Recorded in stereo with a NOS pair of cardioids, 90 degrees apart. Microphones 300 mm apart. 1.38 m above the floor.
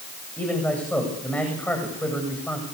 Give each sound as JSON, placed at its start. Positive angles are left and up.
{"t": 0.4, "sound": "a man speaking", "azimuth_deg": 5, "distance_m": 8.5}